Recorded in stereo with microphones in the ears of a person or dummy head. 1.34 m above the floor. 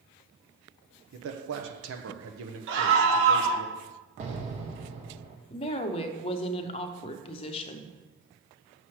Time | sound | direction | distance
1.1 | a man speaking | 70° right (ahead or behind) | 0.8 m
2.7 | a scream | 70° right (ahead or behind) | 1.3 m
4.2 | an explosion | 45° right (ahead or behind) | 1.1 m
5.5 | a woman speaking | 30° left (ahead or behind) | 0.6 m